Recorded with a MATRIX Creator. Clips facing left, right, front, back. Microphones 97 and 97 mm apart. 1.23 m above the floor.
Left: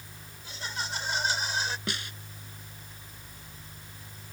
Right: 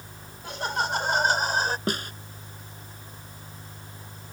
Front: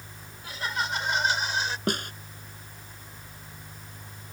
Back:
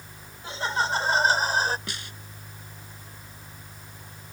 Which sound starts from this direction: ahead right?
A snare drum, at 1.9 s.